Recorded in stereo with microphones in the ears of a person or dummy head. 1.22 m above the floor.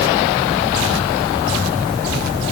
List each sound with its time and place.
Only background noise.